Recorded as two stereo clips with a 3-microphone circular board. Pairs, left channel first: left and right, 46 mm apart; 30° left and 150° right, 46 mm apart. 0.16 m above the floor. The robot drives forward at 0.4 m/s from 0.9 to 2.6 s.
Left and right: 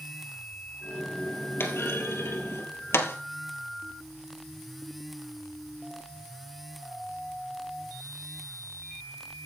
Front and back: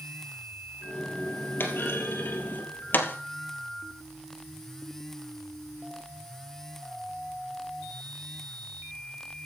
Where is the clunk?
60° left, 3 m; by 3.2 s 70° left, 2.5 m.